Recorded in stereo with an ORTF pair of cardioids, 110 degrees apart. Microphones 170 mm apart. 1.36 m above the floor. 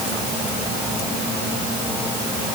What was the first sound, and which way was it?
Only background noise.